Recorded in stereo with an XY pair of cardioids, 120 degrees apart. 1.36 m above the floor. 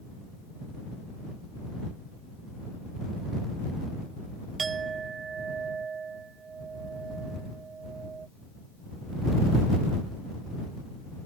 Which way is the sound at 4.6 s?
35° right.